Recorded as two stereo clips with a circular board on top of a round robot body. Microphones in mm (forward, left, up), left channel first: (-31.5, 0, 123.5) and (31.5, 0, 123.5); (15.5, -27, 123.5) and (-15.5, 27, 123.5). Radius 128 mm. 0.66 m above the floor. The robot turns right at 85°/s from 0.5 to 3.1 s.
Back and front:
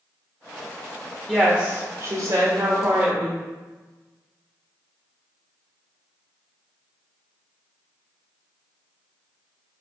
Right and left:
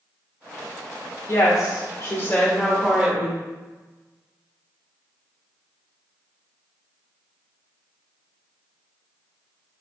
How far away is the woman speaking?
About 1.6 m.